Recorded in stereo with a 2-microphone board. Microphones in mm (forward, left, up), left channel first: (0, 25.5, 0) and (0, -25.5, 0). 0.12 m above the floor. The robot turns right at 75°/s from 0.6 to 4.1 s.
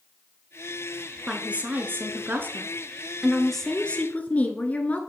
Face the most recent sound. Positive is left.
turn(degrees=50)